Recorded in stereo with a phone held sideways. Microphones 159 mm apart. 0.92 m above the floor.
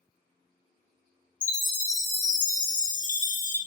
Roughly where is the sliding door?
No sliding door in this recording.